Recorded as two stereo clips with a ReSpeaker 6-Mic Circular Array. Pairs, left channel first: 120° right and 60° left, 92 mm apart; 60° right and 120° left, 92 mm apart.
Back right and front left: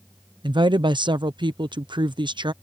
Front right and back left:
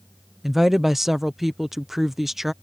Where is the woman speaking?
35° left.